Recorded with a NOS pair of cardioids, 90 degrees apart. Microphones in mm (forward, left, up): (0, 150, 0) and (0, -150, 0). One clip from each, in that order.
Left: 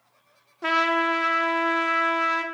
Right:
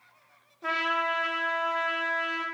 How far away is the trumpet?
About 0.5 m.